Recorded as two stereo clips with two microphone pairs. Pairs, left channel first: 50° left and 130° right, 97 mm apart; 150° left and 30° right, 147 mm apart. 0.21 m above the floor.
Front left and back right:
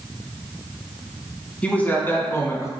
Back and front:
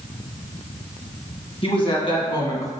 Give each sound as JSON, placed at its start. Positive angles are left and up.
{"t": 1.6, "sound": "a man speaking", "azimuth_deg": 120, "distance_m": 2.0}